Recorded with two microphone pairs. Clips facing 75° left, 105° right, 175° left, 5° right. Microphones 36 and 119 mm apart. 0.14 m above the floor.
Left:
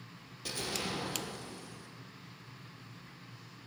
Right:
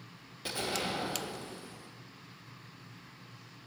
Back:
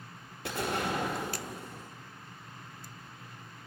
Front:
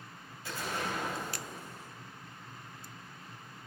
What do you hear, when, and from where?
0.5 s an explosion: 175° right, 0.9 m